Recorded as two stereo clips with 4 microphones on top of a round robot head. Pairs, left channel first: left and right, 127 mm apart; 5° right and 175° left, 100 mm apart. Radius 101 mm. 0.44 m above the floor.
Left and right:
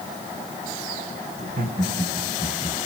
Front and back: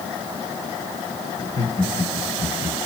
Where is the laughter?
70° right, 3.5 m; by 2.8 s 35° right, 3.5 m.